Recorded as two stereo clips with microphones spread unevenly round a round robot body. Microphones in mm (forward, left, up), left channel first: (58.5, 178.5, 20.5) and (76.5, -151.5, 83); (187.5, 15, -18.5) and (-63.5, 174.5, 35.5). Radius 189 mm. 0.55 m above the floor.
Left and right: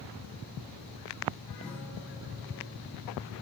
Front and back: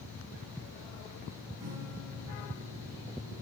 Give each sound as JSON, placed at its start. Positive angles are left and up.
{"t": 1.6, "sound": "a guitar", "azimuth_deg": 180, "distance_m": 5.0}